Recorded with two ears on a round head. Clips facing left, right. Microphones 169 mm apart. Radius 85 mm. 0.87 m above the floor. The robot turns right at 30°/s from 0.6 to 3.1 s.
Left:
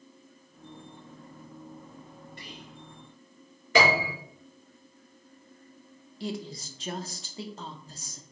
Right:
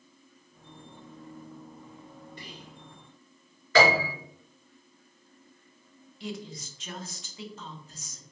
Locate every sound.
2.4 s whispering: 65° right (ahead or behind), 2.5 m; by 2.8 s 55° right (ahead or behind), 2.5 m
3.8 s a piano: 10° left (ahead or behind), 2.5 m
6.2 s a woman speaking: 30° left (ahead or behind), 0.6 m